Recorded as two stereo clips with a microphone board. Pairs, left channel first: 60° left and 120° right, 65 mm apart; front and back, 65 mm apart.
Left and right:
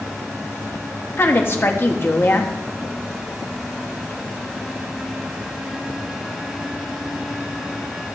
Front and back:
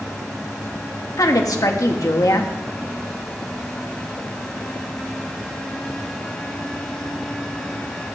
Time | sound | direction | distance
1.2 | a woman speaking | 10° left | 1.3 m